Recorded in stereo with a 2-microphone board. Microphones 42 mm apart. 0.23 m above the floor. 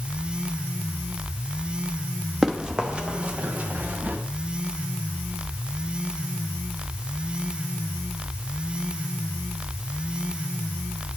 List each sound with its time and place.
2.4 s running footsteps: 10° right (ahead or behind), 2 m; by 4.2 s 45° right (ahead or behind), 3 m